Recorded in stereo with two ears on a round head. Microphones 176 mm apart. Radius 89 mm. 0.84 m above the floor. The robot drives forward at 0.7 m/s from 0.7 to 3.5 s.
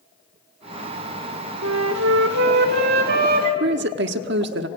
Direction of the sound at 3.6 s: 60° right (ahead or behind).